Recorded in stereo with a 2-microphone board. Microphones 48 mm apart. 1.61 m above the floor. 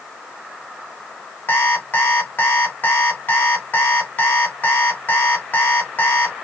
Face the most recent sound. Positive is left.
turn(degrees=45)  # may be behind; listen again after turning